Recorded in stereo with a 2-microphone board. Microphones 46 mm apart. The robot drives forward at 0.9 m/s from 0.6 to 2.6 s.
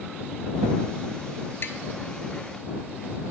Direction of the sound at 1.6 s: 55° left (ahead or behind).